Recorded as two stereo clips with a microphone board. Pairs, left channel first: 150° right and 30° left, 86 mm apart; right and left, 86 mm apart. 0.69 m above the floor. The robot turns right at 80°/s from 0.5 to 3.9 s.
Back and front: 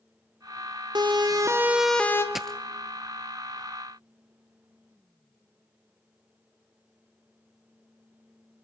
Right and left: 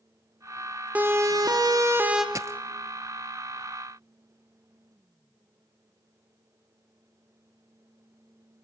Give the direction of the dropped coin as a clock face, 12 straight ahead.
8 o'clock.